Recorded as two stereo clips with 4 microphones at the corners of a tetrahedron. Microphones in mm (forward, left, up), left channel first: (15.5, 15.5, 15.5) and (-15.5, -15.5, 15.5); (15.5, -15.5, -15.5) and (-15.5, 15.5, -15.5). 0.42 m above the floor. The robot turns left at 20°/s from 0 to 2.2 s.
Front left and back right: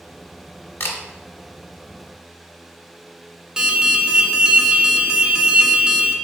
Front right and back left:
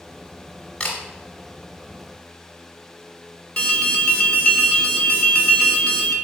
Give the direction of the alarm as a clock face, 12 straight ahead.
3 o'clock.